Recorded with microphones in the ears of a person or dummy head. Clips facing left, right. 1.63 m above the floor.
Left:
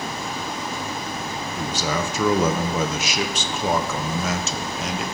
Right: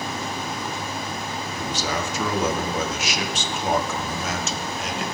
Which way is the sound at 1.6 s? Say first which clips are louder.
Left 2 dB; 75° left (ahead or behind).